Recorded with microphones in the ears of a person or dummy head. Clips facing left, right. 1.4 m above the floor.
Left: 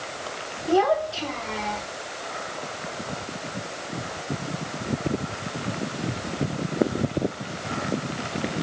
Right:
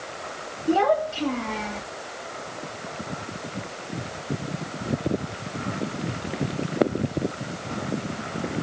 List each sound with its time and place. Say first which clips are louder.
0.7 s a child speaking: even; 30° right (ahead or behind), 2 m; by 1.8 s 45° right (ahead or behind), 1.6 m